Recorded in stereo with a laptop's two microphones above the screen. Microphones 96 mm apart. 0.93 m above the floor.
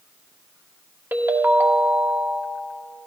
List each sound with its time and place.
1.1 s a ringtone: 20° right (ahead or behind), 0.9 m